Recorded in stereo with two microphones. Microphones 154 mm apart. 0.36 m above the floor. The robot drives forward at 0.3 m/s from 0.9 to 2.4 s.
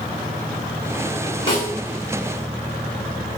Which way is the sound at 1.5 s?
30° left (ahead or behind).